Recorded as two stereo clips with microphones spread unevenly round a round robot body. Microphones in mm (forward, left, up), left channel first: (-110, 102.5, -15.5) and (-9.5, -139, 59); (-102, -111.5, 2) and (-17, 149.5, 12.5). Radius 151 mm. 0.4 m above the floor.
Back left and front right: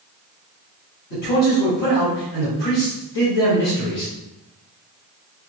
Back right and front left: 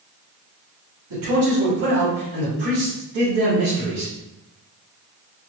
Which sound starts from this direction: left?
A man speaking, at 1.1 s.